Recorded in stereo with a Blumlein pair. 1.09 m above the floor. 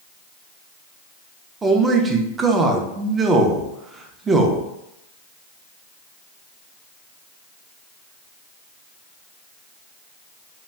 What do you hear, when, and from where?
1.6 s a man speaking: 15° right, 0.6 m